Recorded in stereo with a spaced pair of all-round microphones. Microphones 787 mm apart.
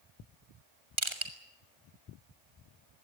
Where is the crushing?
35° right (ahead or behind), 2.5 m.